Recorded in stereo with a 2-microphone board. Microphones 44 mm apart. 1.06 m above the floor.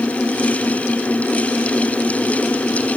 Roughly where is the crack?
I don't hear a crack.